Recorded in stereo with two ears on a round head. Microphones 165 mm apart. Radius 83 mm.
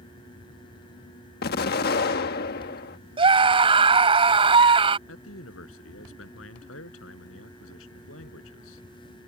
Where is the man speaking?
80° left.